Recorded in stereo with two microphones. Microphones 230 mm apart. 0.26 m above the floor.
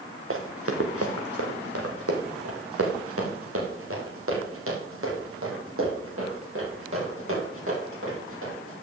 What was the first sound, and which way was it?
Running footsteps, 65° right (ahead or behind).